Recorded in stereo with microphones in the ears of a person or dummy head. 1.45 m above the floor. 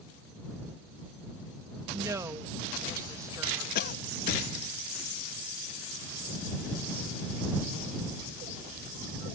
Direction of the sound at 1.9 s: 15° right (ahead or behind).